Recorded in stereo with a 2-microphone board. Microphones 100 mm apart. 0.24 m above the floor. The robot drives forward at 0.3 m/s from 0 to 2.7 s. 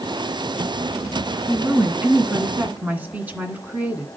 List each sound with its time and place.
1.5 s a woman speaking: 20° right (ahead or behind), 1.7 m; by 4.1 s 15° right (ahead or behind), 2 m